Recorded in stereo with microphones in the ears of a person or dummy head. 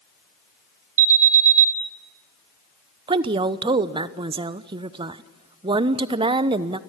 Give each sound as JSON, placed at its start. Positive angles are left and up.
{"t": 1.0, "sound": "an alarm", "side_deg": -70, "distance_m": 1.7}
{"t": 3.1, "sound": "a woman speaking", "side_deg": -30, "distance_m": 0.9}